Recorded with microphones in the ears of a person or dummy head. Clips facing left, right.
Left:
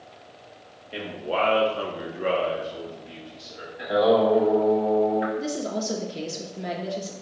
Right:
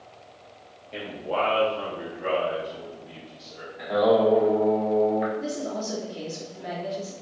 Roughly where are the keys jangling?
I don't hear keys jangling.